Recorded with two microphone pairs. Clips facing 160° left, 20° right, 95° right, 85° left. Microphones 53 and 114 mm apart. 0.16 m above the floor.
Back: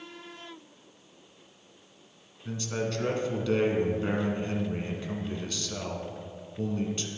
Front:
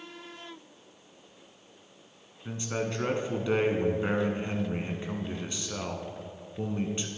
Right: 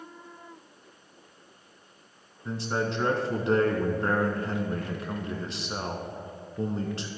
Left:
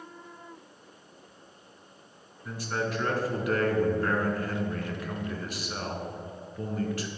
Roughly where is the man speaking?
Ahead right.